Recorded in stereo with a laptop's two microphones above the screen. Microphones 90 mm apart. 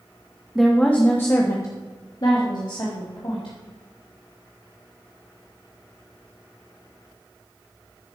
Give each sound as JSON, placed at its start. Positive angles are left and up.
{"t": 0.6, "sound": "a woman speaking", "side_deg": -5, "distance_m": 1.0}